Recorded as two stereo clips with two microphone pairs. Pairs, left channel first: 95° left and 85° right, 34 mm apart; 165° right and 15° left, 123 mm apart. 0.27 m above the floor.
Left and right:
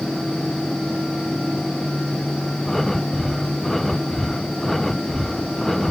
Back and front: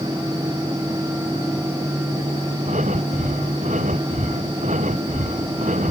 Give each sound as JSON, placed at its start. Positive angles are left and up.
{"t": 2.6, "sound": "breathing", "azimuth_deg": 10}